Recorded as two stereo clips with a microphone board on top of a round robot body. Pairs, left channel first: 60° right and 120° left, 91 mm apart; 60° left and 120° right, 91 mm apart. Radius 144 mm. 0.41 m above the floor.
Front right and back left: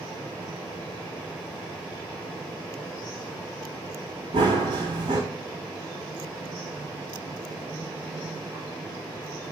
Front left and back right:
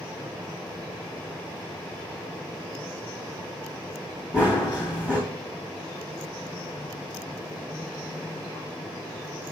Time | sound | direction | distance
4.3 | running footsteps | 160° left | 1.7 m